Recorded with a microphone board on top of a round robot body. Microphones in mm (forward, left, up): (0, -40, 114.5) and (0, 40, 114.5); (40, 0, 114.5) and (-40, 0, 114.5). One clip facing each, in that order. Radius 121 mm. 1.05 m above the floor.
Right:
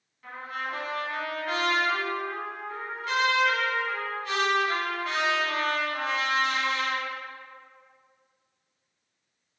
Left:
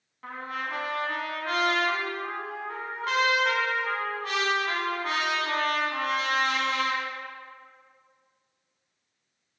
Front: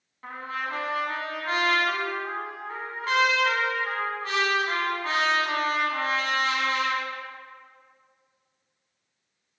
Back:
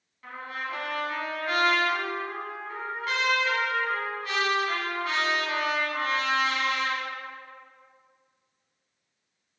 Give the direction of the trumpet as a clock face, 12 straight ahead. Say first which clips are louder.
Left 1 dB, front 3 dB; 10 o'clock.